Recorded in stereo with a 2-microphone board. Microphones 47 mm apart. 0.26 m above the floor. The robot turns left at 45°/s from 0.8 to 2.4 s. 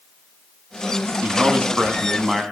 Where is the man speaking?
120° right, 1.8 m; by 2.4 s 175° right, 1.8 m.